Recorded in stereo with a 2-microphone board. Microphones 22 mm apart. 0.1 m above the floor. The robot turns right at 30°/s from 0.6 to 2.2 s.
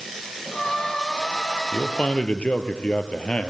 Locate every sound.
1.7 s a man speaking: 50° left (ahead or behind), 1.8 m; by 3.5 s 55° left (ahead or behind), 1.8 m